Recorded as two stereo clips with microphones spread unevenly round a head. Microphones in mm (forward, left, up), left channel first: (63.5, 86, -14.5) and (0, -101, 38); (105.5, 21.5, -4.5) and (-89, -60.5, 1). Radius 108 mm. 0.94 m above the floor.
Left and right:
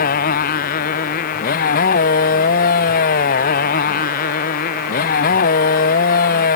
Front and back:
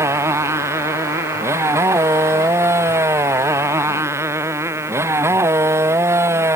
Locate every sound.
0.0 s a motorcycle: 125° left